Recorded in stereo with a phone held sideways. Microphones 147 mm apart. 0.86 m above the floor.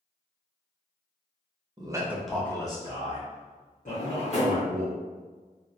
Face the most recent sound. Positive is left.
turn(degrees=50)  # may be behind; listen again after turning